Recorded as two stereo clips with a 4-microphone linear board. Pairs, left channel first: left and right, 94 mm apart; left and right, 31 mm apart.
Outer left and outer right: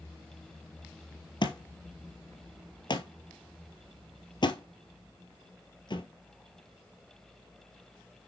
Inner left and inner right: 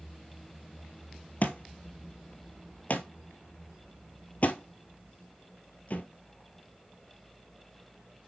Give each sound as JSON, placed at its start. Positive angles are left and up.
{"t": 1.4, "sound": "a thud", "side_deg": 55, "distance_m": 1.0}